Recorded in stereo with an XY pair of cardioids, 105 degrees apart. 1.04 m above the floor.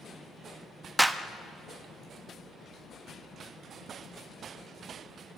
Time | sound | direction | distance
1.0 | a clap | 10° right | 1.0 m